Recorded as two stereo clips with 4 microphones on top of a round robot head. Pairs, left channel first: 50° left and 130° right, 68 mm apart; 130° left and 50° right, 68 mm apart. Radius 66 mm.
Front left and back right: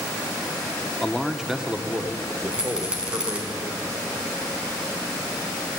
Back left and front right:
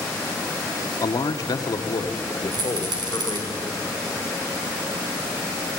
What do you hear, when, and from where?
1.0 s a man speaking: 130° left, 1.0 m; by 3.5 s 175° left, 2.5 m
2.5 s a rattle: 55° right, 4.5 m